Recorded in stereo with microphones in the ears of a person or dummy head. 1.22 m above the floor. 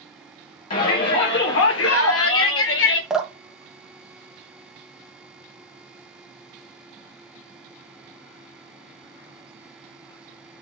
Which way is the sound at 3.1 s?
5° right (ahead or behind).